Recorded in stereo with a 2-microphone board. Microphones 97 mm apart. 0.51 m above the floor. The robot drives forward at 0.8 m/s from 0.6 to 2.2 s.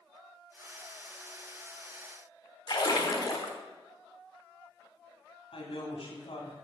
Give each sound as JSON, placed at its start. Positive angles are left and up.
{"t": 2.7, "sound": "a splash", "side_deg": 50, "distance_m": 1.3}
{"t": 5.5, "sound": "a woman speaking", "side_deg": 75, "distance_m": 3.0}